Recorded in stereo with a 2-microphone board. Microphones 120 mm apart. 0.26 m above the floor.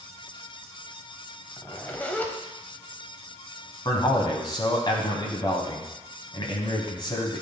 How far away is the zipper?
About 0.9 m.